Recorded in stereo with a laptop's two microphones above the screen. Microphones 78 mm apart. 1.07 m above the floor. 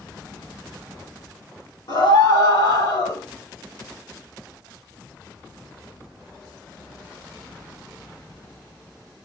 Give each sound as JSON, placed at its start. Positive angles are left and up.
{"t": 1.9, "sound": "a scream", "side_deg": 70, "distance_m": 4.0}